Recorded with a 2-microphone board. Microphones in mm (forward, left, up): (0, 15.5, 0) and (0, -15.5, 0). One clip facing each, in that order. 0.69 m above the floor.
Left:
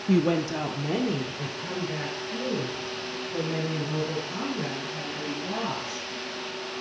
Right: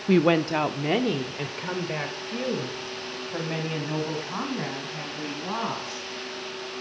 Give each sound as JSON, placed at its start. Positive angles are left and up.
{"t": 0.1, "sound": "a woman speaking", "side_deg": -40, "distance_m": 0.5}